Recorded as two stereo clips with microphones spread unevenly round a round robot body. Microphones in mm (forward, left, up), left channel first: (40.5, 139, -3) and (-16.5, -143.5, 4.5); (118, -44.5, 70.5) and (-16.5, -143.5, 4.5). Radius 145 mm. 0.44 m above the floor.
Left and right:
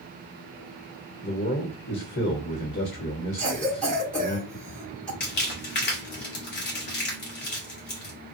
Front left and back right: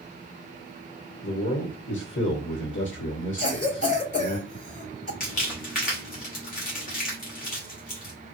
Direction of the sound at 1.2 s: 30° left.